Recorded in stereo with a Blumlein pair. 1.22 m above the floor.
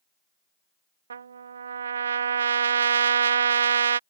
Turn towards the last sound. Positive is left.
turn(degrees=-70)